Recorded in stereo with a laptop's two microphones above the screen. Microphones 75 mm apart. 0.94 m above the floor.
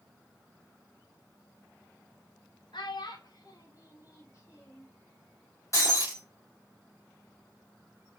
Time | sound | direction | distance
2.7 | a child speaking | 80° left | 0.6 m
5.7 | breaking glass | 45° left (ahead or behind) | 1.3 m